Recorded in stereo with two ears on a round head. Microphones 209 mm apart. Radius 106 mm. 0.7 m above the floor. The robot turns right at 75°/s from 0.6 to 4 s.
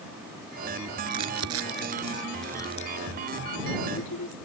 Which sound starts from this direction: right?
Crumpling, at 1.1 s.